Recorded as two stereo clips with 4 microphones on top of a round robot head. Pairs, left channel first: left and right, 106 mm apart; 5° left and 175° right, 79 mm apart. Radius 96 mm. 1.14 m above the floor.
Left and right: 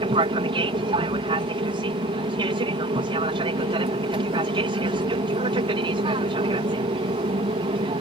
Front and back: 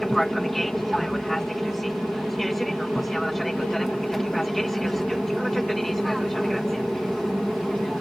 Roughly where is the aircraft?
Right.